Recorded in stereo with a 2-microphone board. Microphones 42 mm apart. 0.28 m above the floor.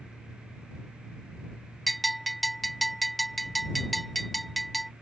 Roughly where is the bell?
Centre.